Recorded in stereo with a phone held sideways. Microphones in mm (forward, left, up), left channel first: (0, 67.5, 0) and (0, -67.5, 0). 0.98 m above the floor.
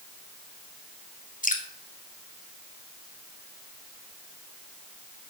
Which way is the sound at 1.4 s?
75° left (ahead or behind).